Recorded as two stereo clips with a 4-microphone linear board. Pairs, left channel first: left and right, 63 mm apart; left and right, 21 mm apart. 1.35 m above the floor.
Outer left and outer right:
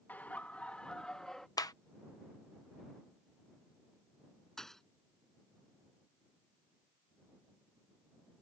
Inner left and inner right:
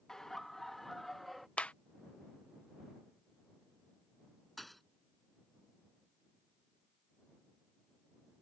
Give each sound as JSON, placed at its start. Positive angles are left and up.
{"t": 0.1, "sound": "laughter", "side_deg": 30}
{"t": 1.6, "sound": "a clap", "side_deg": 80}
{"t": 4.6, "sound": "a thud", "side_deg": 10}